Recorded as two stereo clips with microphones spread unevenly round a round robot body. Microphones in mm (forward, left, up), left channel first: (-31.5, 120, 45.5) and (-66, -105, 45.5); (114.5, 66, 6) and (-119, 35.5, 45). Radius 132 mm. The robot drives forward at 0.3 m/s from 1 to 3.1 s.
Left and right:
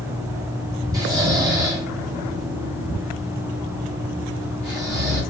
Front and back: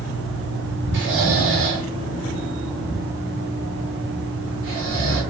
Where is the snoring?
160° right, 1.5 m; by 5.2 s 170° right, 1.9 m.